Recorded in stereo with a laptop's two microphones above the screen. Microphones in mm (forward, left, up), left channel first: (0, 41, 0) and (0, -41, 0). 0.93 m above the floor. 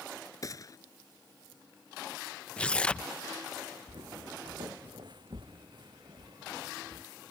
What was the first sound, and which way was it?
A gunshot, 45° left (ahead or behind).